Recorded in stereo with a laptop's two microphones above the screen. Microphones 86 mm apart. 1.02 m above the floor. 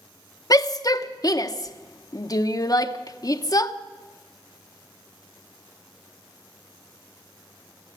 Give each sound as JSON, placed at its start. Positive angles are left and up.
{"t": 0.5, "sound": "a shout", "side_deg": 45, "distance_m": 0.7}